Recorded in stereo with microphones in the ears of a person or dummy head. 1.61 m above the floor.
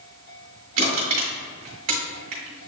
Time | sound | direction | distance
0.8 | crushing | 35° right (ahead or behind) | 1.5 m